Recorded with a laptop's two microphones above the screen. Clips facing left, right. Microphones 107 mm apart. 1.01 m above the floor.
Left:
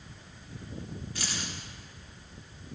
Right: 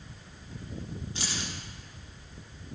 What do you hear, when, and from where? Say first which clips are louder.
1.1 s keys jangling: right 1 dB; 25° right (ahead or behind), 1.6 m